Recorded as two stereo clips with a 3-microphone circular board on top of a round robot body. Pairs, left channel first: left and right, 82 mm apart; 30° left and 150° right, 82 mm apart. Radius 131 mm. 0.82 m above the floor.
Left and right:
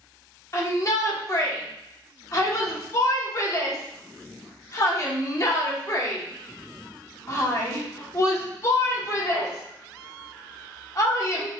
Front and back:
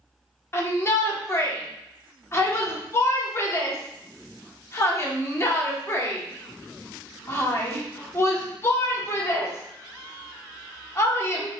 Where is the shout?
70° left, 1.3 m.